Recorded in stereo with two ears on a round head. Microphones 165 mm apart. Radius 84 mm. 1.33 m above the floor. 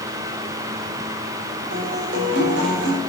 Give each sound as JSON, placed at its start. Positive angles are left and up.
{"t": 1.7, "sound": "a guitar", "side_deg": -80, "distance_m": 4.5}